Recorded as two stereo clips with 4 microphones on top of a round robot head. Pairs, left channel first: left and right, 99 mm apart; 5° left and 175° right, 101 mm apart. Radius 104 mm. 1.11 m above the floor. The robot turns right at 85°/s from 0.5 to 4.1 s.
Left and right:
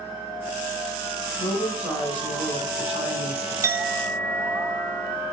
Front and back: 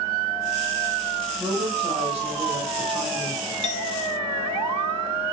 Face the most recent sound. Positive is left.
turn(degrees=10)